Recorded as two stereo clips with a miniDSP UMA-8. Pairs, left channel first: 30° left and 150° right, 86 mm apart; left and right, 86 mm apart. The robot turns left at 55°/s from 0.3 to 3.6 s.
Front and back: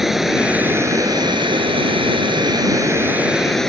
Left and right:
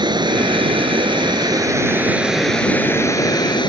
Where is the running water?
65° right; by 3.7 s 115° left.